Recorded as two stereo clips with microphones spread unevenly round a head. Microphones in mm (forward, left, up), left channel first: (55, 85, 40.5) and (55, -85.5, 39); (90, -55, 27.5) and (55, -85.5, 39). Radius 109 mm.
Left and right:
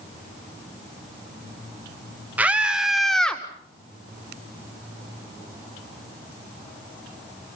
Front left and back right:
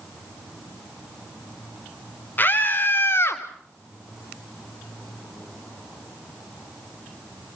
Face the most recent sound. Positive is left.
turn(degrees=5)